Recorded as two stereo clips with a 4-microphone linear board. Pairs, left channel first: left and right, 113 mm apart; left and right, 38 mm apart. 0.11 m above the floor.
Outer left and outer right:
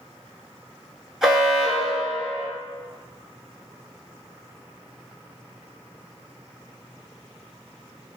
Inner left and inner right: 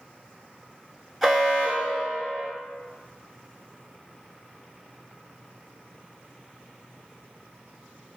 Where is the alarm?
5° right (ahead or behind), 0.8 m.